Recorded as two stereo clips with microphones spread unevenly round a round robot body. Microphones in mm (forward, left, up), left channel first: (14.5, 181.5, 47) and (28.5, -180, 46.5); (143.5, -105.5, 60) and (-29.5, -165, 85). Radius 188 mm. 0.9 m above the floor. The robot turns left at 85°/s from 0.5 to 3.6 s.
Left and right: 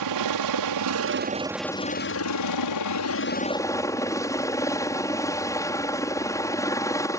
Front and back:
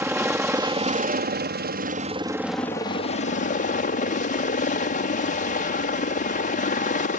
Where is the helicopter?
85° right; by 7.2 s 15° left.